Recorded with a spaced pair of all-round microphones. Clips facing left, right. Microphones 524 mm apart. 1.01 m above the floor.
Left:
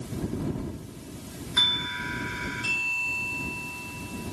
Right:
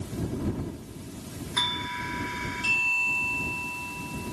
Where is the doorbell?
20° right (ahead or behind).